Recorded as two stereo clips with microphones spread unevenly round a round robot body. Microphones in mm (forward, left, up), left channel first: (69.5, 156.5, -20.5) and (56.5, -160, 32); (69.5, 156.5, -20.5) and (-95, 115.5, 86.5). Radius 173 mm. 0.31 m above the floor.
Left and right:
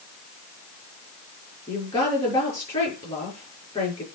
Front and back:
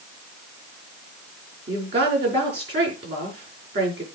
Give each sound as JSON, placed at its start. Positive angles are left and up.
{"t": 1.7, "sound": "a woman speaking", "azimuth_deg": 165, "distance_m": 6.0}